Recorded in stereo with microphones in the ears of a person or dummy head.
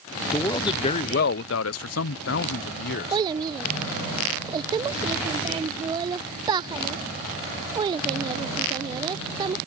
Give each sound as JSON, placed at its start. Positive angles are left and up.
{"t": 0.3, "sound": "a man speaking", "side_deg": 15}
{"t": 3.1, "sound": "a child speaking", "side_deg": -25}